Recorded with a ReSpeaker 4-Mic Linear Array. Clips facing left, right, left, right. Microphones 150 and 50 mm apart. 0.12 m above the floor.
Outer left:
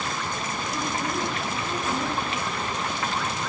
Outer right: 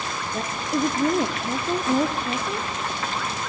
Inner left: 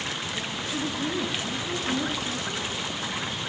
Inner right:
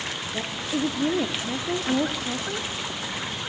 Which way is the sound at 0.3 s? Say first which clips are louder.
Outer right 5 dB, inner right 3 dB; 50° right (ahead or behind).